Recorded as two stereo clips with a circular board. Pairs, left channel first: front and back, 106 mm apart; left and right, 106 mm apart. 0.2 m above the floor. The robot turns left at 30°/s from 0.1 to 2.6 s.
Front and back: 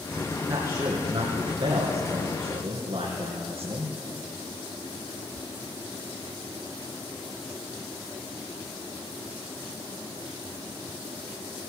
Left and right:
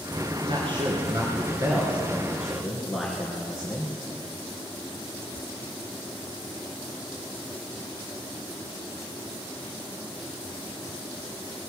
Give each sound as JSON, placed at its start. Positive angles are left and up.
{"t": 0.5, "sound": "a man speaking", "azimuth_deg": -115, "distance_m": 3.0}